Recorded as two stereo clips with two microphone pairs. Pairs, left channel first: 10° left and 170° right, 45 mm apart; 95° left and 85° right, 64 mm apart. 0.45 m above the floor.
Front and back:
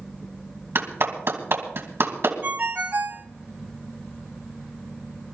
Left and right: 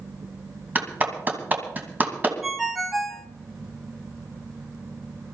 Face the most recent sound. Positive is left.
turn(degrees=-175)